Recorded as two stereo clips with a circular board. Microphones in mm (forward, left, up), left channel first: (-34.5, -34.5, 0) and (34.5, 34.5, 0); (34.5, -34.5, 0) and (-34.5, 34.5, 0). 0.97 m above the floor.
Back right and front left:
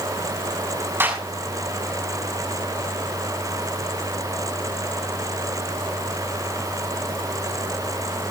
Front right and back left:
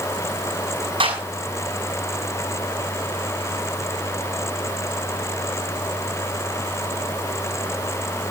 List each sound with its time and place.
1.0 s a clap: 110° left, 6 m